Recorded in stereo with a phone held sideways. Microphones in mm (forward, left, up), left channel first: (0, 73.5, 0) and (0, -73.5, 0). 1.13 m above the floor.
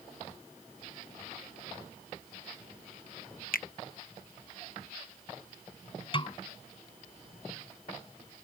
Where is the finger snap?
75° left (ahead or behind).